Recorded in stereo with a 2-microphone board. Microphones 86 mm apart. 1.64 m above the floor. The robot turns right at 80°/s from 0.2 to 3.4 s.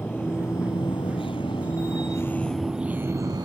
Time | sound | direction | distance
0.0 | a vehicle | 20° left (ahead or behind) | ?